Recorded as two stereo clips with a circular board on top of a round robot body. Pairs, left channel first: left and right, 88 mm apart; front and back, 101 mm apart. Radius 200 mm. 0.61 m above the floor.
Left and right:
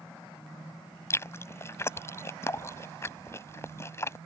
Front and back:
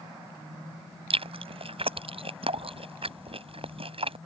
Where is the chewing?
150° left.